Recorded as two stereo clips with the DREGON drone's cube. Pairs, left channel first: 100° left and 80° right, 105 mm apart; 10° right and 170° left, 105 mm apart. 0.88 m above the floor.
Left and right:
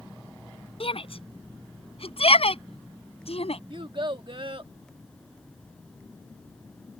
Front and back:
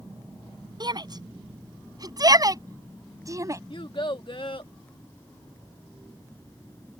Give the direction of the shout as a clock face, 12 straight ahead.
8 o'clock.